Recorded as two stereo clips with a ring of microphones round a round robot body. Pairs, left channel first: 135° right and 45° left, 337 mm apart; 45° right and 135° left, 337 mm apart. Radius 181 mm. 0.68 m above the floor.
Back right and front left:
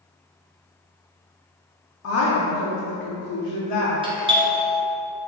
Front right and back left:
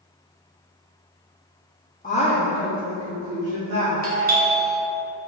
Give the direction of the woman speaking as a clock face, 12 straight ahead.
3 o'clock.